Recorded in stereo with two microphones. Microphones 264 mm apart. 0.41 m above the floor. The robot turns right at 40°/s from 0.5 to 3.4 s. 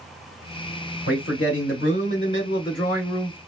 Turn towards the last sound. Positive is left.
turn(degrees=160)